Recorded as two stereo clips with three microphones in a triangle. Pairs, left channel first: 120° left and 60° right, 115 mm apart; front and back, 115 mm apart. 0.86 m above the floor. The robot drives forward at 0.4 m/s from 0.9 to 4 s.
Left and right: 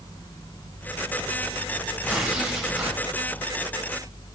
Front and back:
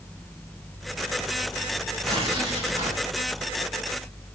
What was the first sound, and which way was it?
Tearing paper, 145° right.